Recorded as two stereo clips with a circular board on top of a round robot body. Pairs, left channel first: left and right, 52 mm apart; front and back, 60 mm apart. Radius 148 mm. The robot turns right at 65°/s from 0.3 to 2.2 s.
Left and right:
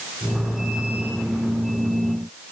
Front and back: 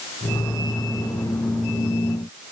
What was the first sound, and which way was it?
Only background noise.